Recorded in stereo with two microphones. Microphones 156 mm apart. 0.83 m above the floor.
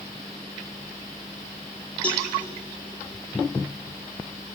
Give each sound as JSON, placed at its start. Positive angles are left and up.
{"t": 2.0, "sound": "a cowbell", "side_deg": 10, "distance_m": 3.0}